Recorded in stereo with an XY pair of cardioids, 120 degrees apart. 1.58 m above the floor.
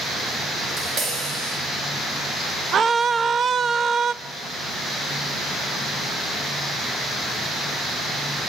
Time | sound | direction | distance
0.6 | tapping | 55° right | 9 m
2.7 | a scream | 40° right | 0.6 m